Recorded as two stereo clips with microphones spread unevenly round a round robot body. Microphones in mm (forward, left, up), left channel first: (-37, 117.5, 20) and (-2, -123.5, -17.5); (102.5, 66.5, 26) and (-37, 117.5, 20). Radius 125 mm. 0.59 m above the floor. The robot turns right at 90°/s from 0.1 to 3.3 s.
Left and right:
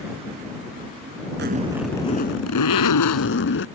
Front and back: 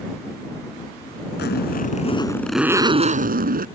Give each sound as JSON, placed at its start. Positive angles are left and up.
{"t": 1.4, "sound": "a zipper", "azimuth_deg": -35}